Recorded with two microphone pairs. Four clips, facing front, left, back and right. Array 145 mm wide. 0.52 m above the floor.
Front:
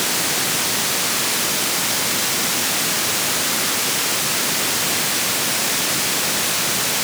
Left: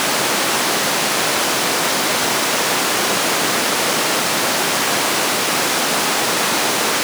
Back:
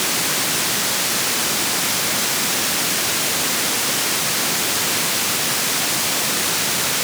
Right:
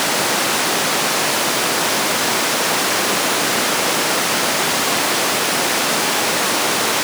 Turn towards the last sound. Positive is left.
No sound to turn to.